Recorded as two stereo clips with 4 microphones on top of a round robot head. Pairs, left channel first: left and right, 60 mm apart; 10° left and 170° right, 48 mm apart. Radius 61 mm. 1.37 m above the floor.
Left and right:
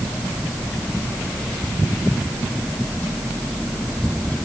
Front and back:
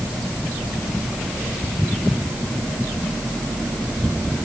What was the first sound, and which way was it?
Only background noise.